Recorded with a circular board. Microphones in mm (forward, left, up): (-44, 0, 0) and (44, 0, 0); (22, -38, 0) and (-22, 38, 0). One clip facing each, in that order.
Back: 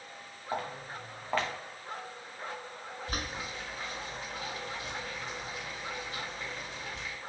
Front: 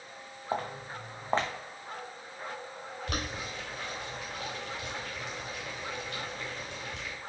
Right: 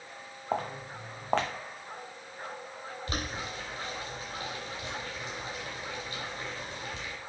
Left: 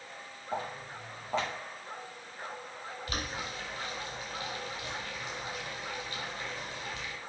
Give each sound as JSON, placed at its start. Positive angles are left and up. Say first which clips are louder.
{"t": 0.5, "sound": "footsteps", "louder": "front 2 dB, right 4 dB", "azimuth_deg": -65, "distance_m": 0.9}
{"t": 3.1, "sound": "boiling", "louder": "front 2 dB, right 1 dB", "azimuth_deg": -5, "distance_m": 2.0}